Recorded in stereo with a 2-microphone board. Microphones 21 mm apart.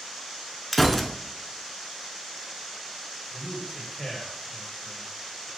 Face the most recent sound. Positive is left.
turn(degrees=0)  # may be behind; listen again after turning